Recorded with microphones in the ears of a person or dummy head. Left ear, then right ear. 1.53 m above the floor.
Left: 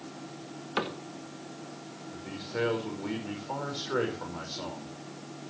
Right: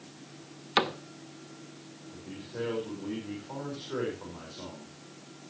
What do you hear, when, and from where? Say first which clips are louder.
0.8 s a cupboard door: right 5 dB; 35° right (ahead or behind), 0.7 m
2.1 s a man speaking: left 6 dB; 85° left, 4.5 m